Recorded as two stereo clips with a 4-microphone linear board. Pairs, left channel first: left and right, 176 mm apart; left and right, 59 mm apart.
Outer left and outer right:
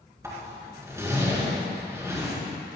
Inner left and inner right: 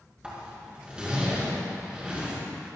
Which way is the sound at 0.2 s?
15° right (ahead or behind).